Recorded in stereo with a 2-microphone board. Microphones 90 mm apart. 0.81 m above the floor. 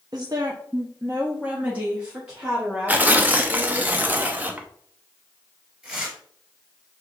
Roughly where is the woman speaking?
Right.